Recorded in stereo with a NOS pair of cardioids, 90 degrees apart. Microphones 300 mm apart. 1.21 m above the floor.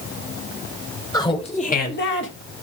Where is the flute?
I don't hear a flute.